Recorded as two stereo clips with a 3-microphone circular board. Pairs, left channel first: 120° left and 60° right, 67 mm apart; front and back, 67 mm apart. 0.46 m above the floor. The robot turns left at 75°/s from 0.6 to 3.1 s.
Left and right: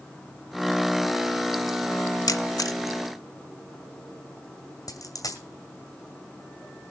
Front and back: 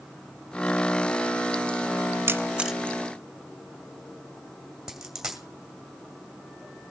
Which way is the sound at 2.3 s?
135° left.